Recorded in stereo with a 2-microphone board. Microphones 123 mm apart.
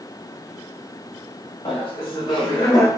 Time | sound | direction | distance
1.6 | laughter | 50° left (ahead or behind) | 1.4 m